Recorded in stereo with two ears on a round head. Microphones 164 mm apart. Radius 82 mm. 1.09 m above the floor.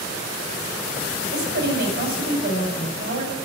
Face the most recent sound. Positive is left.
turn(degrees=-55)  # may be behind; listen again after turning